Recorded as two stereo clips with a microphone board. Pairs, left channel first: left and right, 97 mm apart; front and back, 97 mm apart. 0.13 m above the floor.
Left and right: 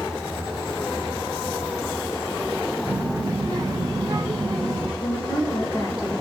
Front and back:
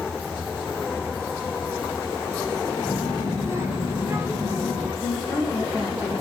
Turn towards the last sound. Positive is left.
turn(degrees=75)